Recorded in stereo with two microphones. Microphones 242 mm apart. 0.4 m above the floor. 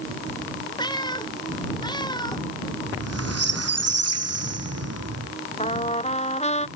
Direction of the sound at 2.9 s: 80° right.